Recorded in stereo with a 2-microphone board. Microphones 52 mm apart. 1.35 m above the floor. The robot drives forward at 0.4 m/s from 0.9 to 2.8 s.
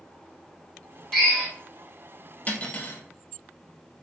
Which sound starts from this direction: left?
Cutlery clinking, at 2.5 s.